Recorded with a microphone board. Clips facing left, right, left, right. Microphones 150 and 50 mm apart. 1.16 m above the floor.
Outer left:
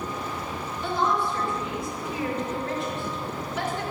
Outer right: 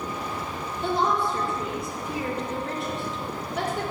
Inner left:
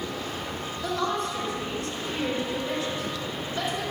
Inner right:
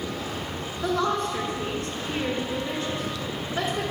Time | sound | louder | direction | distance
0.8 | a woman speaking | outer right 1 dB, inner right 3 dB | 55° right (ahead or behind) | 2.5 m